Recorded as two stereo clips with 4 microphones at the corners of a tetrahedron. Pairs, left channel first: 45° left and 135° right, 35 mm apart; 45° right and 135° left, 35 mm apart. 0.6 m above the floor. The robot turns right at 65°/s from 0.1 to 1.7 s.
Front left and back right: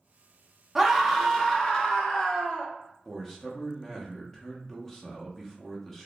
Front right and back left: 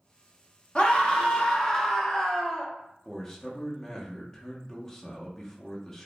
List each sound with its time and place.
0.8 s a scream: 55° right, 0.6 m; by 2.7 s 5° left, 0.6 m
3.0 s a man speaking: straight ahead, 0.5 m